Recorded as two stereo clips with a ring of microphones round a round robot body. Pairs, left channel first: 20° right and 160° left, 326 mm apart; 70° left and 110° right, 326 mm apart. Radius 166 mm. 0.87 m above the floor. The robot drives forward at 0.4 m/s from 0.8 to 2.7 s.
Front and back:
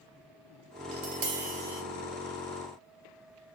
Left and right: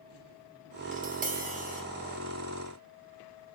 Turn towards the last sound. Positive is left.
turn(degrees=180)